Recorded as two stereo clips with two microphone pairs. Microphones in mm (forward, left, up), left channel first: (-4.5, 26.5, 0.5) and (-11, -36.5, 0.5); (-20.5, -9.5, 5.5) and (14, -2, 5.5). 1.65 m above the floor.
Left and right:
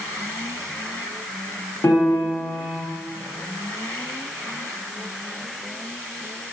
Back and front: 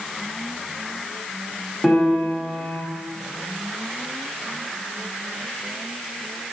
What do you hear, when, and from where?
1.8 s a piano: 115° left, 3.5 m